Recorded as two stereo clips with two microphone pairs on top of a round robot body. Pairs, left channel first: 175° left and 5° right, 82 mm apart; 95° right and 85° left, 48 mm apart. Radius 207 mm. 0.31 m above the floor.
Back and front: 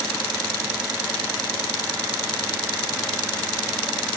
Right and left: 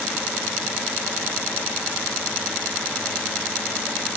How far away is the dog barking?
I don't hear a dog barking.